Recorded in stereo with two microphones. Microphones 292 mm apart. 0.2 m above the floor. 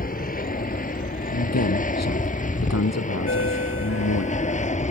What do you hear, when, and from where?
0.0 s an aircraft: 30° left (ahead or behind); by 4.9 s 25° left (ahead or behind)
1.3 s a man speaking: 65° left (ahead or behind)
3.3 s a ringtone: 50° left (ahead or behind)